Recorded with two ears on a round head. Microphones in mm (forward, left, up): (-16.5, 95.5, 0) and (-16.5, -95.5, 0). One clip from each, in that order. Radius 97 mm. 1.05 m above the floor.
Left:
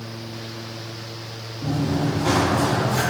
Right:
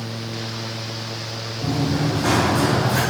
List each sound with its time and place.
1.6 s running footsteps: 50° right (ahead or behind), 1.8 m; by 3.0 s 60° right (ahead or behind), 3.5 m